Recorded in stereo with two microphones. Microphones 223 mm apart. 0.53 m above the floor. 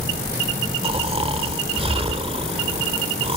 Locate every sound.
0.8 s snoring: 25° right (ahead or behind), 1.5 m